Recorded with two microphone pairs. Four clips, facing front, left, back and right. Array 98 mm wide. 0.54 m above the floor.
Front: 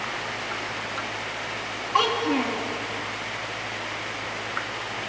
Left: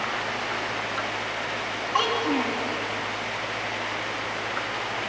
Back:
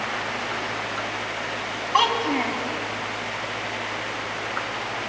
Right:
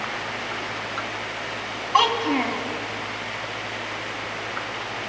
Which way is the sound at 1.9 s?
130° right.